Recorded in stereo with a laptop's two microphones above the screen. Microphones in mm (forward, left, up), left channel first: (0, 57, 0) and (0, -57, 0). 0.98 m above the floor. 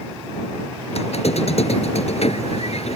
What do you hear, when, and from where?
0.9 s a squeak: 65° left (ahead or behind)